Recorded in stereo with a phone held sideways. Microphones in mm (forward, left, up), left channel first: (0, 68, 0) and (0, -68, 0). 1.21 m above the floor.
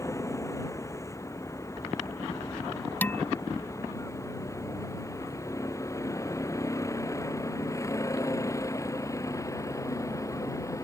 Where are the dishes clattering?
15° left (ahead or behind).